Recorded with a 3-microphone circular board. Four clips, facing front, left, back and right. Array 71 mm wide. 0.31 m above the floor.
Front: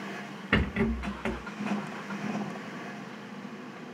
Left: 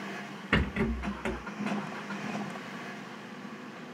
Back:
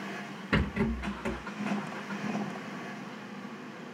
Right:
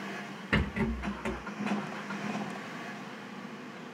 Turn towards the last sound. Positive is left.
turn(degrees=10)